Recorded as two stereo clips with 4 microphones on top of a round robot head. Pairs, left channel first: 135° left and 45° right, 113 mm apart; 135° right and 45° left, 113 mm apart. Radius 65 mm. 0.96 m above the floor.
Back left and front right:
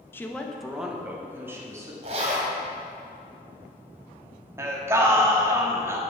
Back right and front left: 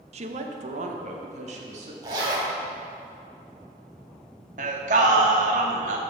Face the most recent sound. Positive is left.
turn(degrees=25)